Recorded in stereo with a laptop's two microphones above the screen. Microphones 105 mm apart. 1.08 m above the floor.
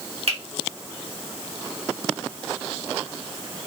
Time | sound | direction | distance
0.3 | a finger snap | 65° right (ahead or behind) | 1.5 m